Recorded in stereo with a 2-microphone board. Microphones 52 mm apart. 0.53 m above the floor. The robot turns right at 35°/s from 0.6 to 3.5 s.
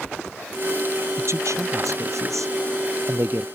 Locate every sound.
1.2 s a man speaking: 55° right (ahead or behind); by 3.5 s 45° right (ahead or behind)